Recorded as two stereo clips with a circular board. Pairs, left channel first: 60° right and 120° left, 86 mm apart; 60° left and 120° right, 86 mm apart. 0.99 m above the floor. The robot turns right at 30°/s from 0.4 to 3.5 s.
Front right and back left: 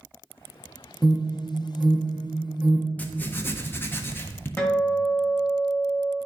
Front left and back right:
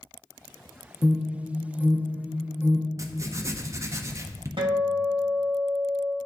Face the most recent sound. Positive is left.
turn(degrees=-130)